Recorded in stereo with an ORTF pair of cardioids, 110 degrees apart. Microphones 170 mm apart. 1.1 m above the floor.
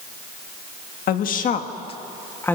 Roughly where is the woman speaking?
Ahead left.